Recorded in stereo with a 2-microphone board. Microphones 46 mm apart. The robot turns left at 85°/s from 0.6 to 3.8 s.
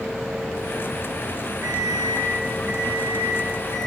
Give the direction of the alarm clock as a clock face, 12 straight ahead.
6 o'clock.